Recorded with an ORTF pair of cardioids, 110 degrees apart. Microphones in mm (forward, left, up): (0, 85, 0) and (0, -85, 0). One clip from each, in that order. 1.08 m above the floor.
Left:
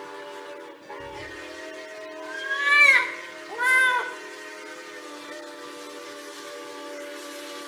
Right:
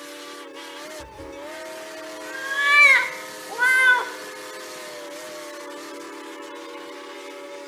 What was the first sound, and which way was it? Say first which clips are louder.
A cat meowing: even; 15° right.